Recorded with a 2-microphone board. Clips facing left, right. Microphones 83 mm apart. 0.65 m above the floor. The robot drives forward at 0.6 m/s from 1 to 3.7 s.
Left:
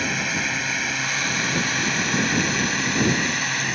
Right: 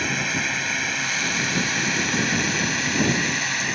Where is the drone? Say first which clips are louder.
Even; centre (ahead or behind).